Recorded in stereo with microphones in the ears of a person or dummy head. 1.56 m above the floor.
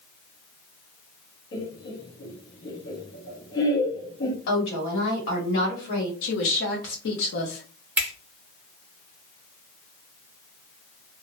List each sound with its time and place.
1.5 s laughter: 65° left (ahead or behind), 1.1 m
4.5 s a woman speaking: 70° left (ahead or behind), 1.4 m
6.2 s a woman speaking: 70° left (ahead or behind), 0.9 m
8.0 s a finger snap: 10° right (ahead or behind), 0.8 m